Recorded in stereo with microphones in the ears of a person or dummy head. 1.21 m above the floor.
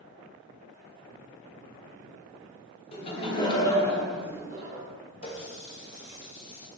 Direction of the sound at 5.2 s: 35° left (ahead or behind).